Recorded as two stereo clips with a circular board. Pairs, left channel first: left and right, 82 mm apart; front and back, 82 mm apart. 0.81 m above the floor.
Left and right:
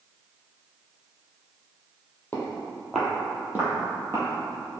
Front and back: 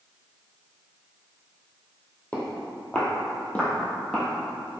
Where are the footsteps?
50° left, 0.9 m; by 4.7 s 80° right, 1.2 m.